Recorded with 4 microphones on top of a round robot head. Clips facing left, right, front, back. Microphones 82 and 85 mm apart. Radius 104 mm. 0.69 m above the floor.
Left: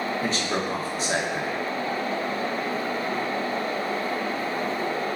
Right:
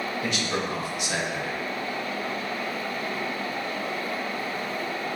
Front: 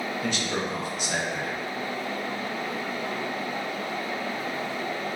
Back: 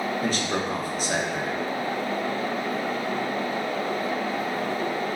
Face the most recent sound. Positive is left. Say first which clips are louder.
# left 2 dB, back 3 dB
turn(degrees=135)